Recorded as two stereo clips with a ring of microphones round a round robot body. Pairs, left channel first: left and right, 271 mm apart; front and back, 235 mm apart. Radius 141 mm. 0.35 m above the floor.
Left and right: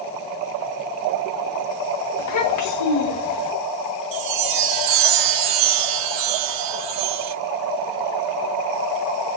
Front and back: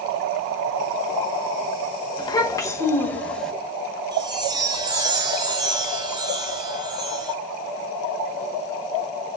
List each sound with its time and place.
2.2 s a child speaking: 70° left, 2.5 m; by 3.5 s 90° left, 2.5 m
4.1 s a chime: 105° right, 0.9 m